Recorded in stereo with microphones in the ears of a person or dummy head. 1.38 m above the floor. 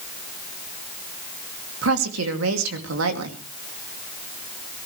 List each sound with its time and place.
1.8 s a woman speaking: 75° right (ahead or behind), 2.5 m